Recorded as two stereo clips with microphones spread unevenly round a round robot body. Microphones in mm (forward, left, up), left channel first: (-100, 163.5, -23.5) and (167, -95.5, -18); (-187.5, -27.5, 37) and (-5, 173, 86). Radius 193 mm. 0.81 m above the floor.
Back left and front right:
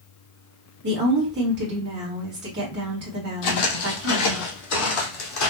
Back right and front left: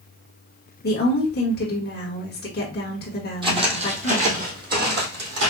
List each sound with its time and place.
0.8 s a woman speaking: 100° right, 1.5 m
3.4 s footsteps: 115° left, 1.9 m; by 5.5 s 85° left, 2.5 m